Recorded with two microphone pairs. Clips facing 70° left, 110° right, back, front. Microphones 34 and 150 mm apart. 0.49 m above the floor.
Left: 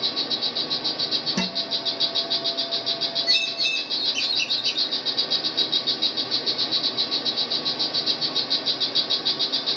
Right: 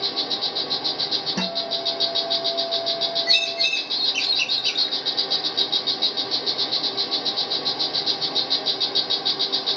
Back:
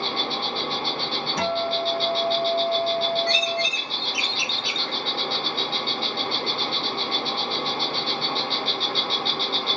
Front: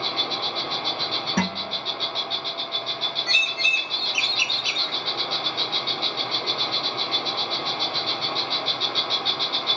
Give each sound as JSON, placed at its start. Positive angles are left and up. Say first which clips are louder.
{"t": 0.0, "sound": "an insect", "louder": "right 1 dB, back 2 dB", "azimuth_deg": -165, "distance_m": 1.4}
{"t": 1.4, "sound": "a guitar", "louder": "right 1 dB, back 5 dB", "azimuth_deg": -30, "distance_m": 1.1}
{"t": 3.3, "sound": "a bird", "louder": "right 2 dB, back 9 dB", "azimuth_deg": -70, "distance_m": 0.9}